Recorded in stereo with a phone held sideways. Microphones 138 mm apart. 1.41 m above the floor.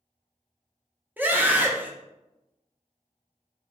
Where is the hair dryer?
I don't hear a hair dryer.